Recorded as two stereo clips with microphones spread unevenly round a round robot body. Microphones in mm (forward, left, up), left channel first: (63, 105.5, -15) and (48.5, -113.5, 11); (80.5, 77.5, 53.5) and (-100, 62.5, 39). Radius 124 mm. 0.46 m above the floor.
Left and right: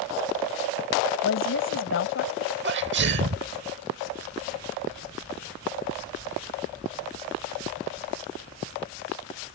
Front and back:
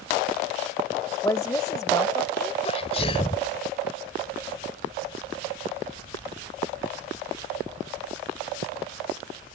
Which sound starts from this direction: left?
A woman speaking, at 1.2 s.